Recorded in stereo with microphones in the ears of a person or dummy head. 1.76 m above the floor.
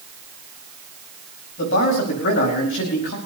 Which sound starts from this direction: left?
A man speaking, at 1.6 s.